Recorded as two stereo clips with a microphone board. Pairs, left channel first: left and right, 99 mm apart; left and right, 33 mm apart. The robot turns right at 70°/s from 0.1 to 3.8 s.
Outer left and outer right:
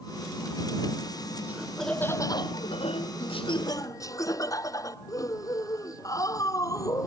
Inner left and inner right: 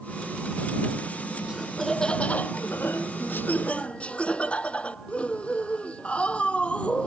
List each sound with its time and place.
1.5 s laughter: 20° right; by 7.1 s 145° left